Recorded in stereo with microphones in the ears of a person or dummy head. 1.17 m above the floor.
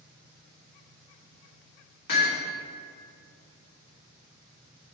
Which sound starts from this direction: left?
Hammering, at 2.1 s.